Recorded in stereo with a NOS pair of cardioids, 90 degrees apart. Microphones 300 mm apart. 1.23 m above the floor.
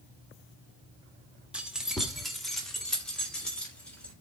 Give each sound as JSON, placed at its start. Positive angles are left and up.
{"t": 1.5, "sound": "keys jangling", "azimuth_deg": -5, "distance_m": 1.7}